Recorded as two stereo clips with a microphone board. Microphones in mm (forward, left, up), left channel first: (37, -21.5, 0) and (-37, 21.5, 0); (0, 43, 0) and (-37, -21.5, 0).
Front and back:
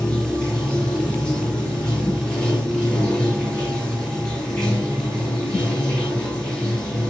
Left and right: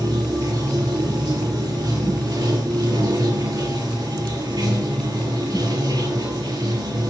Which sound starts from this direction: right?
Running water, at 0.0 s.